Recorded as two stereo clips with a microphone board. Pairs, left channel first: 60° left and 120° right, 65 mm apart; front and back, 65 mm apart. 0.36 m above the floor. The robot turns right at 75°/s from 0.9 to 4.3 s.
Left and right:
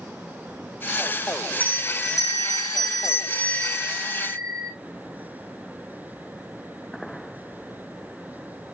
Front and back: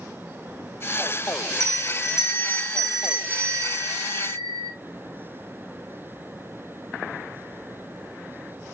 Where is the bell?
10° right, 2.5 m; by 4.7 s 165° right, 2.5 m.